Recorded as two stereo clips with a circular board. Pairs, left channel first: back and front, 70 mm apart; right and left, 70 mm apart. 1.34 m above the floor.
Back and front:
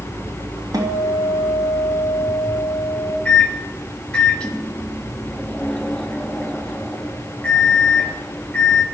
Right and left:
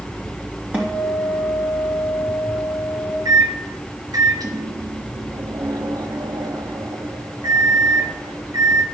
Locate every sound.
0.7 s a guitar: 20° left, 3.5 m
3.2 s a microwave: 105° left, 1.3 m